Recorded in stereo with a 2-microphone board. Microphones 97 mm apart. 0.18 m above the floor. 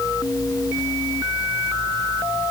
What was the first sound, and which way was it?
Only background noise.